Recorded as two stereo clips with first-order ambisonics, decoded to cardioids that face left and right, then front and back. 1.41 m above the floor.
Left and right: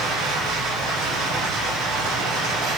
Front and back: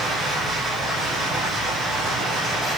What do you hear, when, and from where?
0.0 s running water: 110° right, 3 m